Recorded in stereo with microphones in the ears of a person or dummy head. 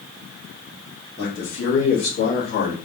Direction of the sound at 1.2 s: 20° left (ahead or behind).